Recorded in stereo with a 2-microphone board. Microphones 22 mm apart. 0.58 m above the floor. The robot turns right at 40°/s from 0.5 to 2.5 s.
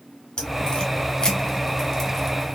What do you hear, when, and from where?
0.4 s a crack: 45° left (ahead or behind), 1.0 m; by 2.6 s 5° left (ahead or behind), 1.0 m